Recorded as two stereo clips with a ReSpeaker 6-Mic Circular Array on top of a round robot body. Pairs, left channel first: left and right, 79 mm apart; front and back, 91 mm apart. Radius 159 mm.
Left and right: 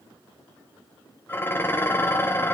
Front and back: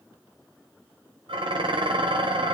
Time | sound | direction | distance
1.3 | dishes clattering | 150° left | 2 m